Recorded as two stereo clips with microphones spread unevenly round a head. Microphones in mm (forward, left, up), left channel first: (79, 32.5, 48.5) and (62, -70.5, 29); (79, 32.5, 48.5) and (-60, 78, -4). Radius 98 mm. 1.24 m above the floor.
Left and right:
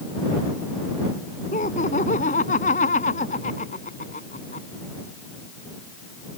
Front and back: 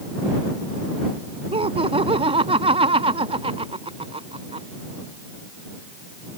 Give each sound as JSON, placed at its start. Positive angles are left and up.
{"t": 1.5, "sound": "laughter", "azimuth_deg": 110}